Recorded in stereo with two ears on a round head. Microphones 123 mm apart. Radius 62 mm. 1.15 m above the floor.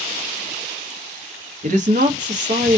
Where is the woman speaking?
55° right (ahead or behind), 0.7 m.